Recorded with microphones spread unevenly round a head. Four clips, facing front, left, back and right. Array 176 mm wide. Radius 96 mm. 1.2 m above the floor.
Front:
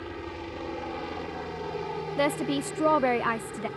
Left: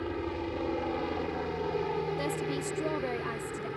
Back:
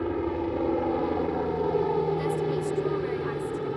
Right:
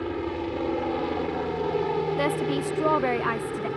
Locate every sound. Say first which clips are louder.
0.0 s a helicopter: right 5 dB, back 10 dB; 160° right; by 3.8 s 150° right
2.2 s a woman speaking: right 7 dB, even; 25° right